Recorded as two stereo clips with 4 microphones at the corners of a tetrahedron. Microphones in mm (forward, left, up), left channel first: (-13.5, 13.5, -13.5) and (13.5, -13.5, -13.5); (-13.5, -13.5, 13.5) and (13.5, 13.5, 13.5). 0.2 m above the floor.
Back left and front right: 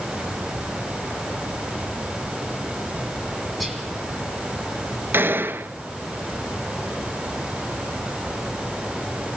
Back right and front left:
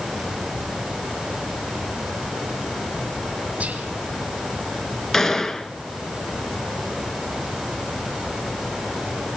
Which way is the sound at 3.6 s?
45° left.